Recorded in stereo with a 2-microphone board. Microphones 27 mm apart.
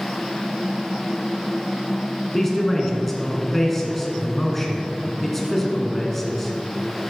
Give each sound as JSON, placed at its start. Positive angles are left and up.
{"t": 2.3, "sound": "a man speaking", "side_deg": 10, "distance_m": 1.7}